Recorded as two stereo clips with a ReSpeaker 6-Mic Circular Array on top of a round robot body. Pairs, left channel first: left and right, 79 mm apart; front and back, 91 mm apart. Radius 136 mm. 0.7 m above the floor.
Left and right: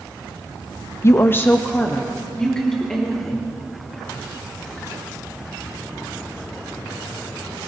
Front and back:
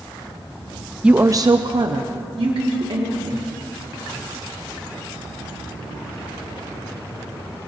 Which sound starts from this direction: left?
A woman speaking, at 1.0 s.